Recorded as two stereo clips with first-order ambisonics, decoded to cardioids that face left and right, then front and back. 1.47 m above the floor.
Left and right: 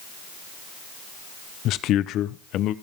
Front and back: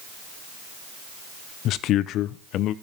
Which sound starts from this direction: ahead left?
A man speaking, at 1.6 s.